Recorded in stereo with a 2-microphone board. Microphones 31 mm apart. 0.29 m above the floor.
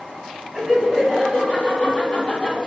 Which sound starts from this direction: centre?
Laughter, at 0.5 s.